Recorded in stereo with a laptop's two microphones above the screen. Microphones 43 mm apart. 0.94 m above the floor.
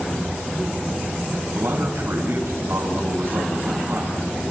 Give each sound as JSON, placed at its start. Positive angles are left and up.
{"t": 1.6, "sound": "a man speaking", "side_deg": -60, "distance_m": 6.0}